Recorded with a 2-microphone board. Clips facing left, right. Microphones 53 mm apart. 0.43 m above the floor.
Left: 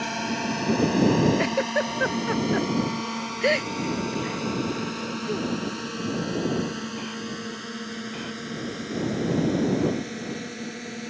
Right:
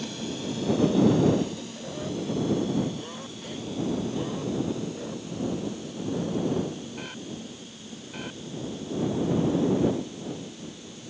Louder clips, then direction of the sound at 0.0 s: Left 5 dB; 60° left (ahead or behind).